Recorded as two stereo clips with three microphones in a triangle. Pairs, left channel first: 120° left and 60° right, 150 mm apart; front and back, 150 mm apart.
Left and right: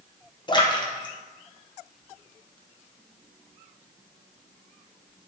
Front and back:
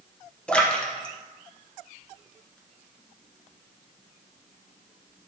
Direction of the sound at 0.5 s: 80° left.